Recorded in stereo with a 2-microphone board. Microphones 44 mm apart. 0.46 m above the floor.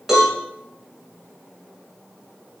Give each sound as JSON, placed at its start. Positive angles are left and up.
{"t": 0.1, "sound": "a cowbell", "side_deg": -10, "distance_m": 4.5}